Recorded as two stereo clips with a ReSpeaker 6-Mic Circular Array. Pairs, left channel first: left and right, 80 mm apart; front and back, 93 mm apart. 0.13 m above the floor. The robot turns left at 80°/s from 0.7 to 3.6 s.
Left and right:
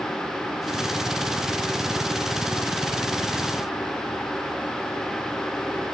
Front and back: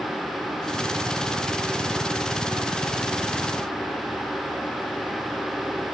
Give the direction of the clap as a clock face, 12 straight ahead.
No clap in this recording.